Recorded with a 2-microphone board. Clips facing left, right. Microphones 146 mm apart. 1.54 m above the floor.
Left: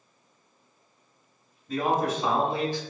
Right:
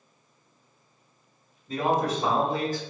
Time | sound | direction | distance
1.7 | a man speaking | 25° right (ahead or behind) | 1.8 m